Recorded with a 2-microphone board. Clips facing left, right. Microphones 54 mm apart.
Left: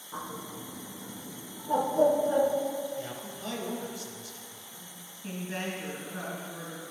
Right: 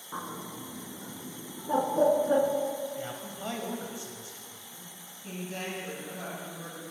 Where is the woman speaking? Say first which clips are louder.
Left 2 dB; 50° left (ahead or behind), 2.5 m.